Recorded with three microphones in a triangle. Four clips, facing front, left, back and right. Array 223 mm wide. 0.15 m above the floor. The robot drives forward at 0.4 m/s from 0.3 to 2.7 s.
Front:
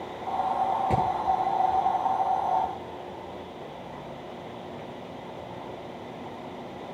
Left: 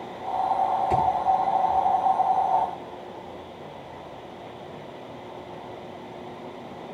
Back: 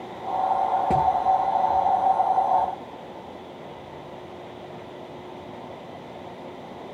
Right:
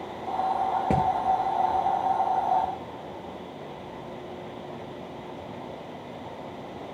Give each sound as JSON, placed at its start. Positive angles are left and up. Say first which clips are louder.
{"t": 0.9, "sound": "hammering", "louder": "even, back 5 dB", "azimuth_deg": -110, "distance_m": 9.0}